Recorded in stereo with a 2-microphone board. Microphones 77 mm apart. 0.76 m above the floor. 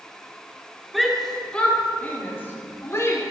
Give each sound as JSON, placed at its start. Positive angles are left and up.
{"t": 0.9, "sound": "a shout", "side_deg": 0, "distance_m": 1.5}